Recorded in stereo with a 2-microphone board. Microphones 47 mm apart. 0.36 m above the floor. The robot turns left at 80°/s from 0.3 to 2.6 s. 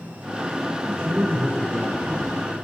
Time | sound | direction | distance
0.8 | a man speaking | 95° right | 3 m